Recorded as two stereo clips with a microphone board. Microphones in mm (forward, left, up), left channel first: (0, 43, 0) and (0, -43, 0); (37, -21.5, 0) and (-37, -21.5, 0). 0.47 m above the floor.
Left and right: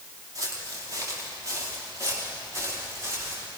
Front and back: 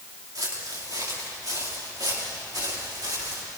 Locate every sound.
0.3 s footsteps: 145° right, 8.5 m; by 3.4 s 150° right, 12.5 m